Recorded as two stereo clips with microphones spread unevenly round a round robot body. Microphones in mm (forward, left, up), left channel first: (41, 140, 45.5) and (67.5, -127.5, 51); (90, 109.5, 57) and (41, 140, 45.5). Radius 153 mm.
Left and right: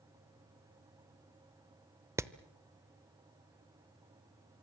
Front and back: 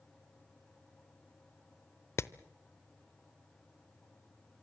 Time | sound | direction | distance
2.2 | hammering | 10° right | 0.8 m